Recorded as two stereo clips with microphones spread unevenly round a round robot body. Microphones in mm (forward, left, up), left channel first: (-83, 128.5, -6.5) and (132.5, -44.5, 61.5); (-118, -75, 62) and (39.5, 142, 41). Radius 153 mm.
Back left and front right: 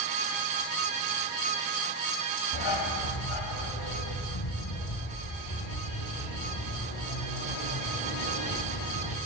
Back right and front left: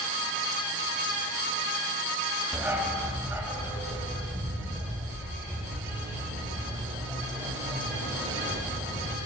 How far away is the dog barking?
About 2.0 m.